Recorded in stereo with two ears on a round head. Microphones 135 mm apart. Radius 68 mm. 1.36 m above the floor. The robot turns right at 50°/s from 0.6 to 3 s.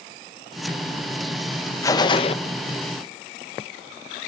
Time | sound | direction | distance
1.8 | a gunshot | 20° left (ahead or behind) | 0.7 m